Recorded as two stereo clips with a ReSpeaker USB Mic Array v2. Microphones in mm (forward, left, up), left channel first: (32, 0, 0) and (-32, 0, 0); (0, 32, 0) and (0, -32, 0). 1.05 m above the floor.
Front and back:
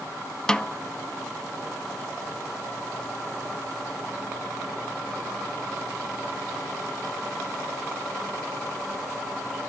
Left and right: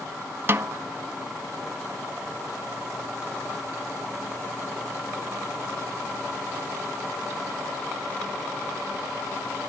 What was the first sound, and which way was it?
A snare drum, 70° right.